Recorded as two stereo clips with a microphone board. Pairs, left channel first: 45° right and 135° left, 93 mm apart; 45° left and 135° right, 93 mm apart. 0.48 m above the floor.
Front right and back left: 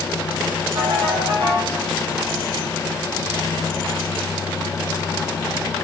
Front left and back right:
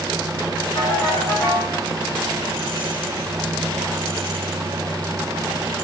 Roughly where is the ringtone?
Behind left.